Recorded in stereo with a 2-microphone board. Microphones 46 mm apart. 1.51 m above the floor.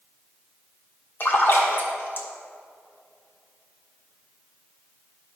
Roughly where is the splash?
Left.